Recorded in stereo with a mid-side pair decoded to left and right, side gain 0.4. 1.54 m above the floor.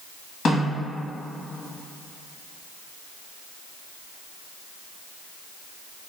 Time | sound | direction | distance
0.5 | a snare drum | 60° left | 1.6 m